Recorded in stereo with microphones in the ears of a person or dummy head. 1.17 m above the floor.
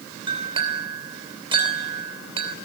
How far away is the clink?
About 3 m.